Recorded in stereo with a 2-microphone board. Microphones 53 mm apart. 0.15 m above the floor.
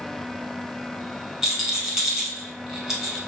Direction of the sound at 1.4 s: 5° right (ahead or behind).